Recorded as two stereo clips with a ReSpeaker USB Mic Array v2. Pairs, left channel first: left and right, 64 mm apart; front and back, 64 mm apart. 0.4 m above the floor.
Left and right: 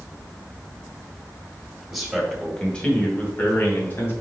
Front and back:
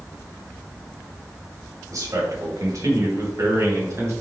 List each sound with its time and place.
1.9 s a man speaking: 175° right, 2 m; by 4.1 s 140° left, 3 m